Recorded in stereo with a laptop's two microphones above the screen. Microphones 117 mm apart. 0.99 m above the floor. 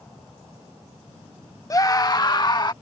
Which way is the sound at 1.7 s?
30° left (ahead or behind).